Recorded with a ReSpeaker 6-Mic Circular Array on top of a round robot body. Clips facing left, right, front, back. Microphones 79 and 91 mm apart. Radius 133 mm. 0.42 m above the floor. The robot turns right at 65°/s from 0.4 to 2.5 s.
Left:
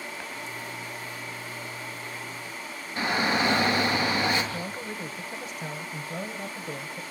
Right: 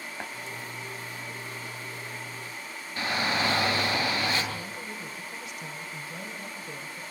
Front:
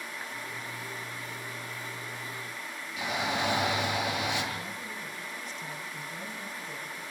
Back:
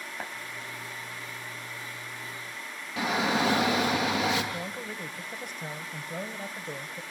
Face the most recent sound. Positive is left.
turn(degrees=140)